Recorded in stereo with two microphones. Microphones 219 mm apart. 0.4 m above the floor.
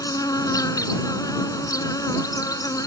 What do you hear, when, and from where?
0.0 s an insect: 15° left (ahead or behind)